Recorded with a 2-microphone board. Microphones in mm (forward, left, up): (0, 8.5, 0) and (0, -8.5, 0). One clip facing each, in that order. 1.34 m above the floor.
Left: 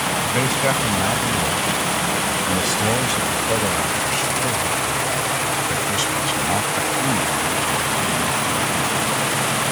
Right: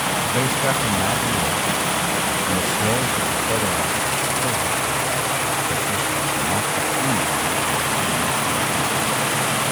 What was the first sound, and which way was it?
A man speaking, 35° left (ahead or behind).